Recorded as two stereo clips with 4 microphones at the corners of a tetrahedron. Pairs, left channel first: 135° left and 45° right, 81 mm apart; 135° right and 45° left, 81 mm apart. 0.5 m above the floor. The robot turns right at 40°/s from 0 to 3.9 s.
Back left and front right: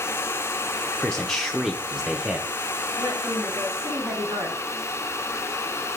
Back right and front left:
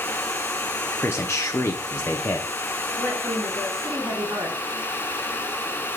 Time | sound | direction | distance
1.0 | a man speaking | 155° right | 0.8 m
3.0 | a woman speaking | 10° right | 4.5 m